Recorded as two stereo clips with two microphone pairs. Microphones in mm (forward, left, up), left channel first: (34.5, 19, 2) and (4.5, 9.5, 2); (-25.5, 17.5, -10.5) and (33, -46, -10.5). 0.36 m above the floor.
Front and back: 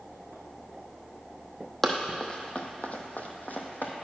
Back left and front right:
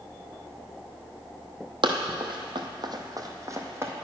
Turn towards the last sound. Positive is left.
turn(degrees=10)